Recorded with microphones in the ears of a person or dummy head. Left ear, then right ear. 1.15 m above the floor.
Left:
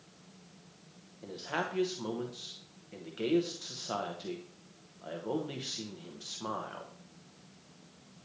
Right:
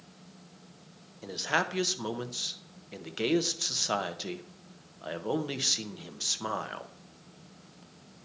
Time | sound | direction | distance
1.2 | a man speaking | 50° right (ahead or behind) | 0.6 m